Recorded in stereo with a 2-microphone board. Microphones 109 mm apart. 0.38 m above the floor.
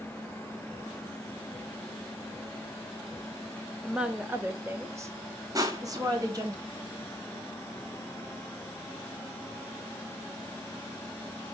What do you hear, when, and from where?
3.8 s a woman speaking: 5° right (ahead or behind), 0.8 m; by 6.5 s 35° right (ahead or behind), 2 m
5.5 s crushing: 35° right (ahead or behind), 1.4 m